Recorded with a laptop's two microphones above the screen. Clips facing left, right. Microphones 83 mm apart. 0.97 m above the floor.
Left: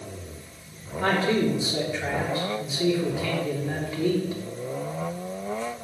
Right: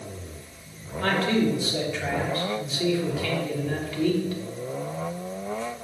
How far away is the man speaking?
About 3 m.